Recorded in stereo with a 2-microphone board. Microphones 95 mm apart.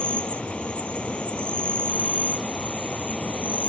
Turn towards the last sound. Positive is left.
turn(degrees=10)  # may be behind; listen again after turning